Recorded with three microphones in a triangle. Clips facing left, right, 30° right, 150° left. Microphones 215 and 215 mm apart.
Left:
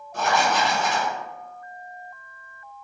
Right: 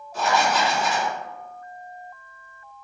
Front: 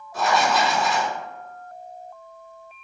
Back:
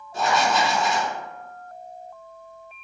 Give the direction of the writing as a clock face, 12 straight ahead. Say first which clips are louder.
Even, front 1 dB; 9 o'clock.